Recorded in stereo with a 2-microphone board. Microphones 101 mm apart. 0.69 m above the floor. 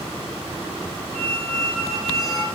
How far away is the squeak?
About 1.5 m.